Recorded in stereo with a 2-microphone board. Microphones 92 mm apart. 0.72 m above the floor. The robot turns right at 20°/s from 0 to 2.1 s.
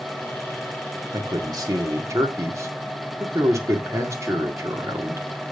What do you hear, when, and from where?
1.1 s a man speaking: 50° right (ahead or behind), 1.7 m; by 5.3 s 35° right (ahead or behind), 1.7 m